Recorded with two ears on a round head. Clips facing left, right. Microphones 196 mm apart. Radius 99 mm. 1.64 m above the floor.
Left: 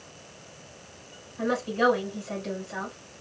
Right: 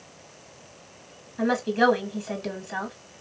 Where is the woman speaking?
60° right (ahead or behind), 1.0 m.